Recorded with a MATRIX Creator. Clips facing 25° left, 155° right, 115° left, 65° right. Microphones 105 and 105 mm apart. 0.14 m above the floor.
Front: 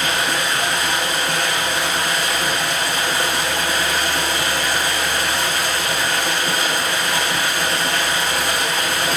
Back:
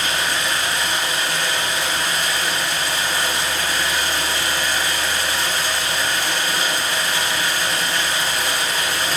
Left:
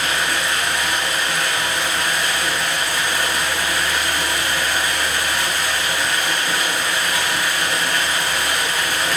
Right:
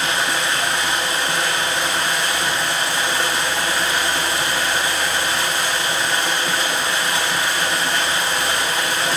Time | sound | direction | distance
0.0 | running water | 5° right | 4.5 m